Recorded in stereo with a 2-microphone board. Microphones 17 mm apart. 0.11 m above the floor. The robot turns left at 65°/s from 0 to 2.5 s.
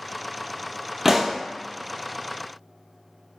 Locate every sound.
1.1 s a pop: 25° right (ahead or behind), 0.6 m; by 1.4 s 45° right (ahead or behind), 0.6 m